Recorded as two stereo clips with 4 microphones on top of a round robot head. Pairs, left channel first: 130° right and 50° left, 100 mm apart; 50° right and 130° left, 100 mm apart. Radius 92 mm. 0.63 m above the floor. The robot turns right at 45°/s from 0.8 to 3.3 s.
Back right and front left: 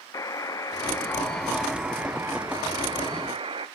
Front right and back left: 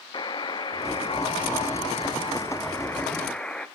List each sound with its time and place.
0.1 s a buzzer: 80° right, 0.6 m; by 3.7 s 30° left, 0.6 m